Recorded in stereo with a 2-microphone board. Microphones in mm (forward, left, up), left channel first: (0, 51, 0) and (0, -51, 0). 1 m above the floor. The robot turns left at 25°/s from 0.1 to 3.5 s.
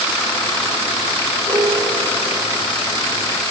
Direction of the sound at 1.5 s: 50° right (ahead or behind).